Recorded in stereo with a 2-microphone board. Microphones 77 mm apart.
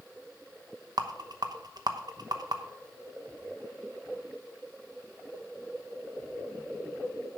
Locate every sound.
1.0 s a rattle: 60° right (ahead or behind), 0.9 m